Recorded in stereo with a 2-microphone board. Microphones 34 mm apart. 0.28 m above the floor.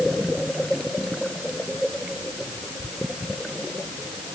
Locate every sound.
Only background noise.